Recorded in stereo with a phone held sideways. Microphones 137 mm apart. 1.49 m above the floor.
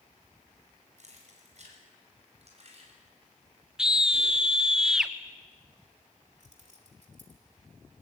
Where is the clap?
No clap in this recording.